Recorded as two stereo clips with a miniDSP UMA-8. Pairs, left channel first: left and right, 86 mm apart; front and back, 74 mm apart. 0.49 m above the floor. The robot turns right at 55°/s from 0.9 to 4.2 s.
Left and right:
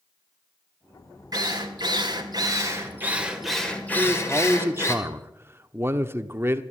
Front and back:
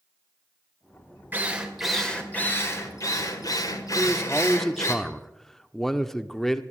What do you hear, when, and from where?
1.3 s a drill: 120° right, 2 m; by 5.0 s 40° left, 2 m
4.0 s a man speaking: 90° right, 0.8 m; by 6.6 s 75° right, 0.8 m